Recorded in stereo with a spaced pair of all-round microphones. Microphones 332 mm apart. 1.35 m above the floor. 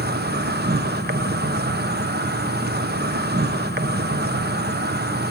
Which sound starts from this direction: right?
An insect, at 0.0 s.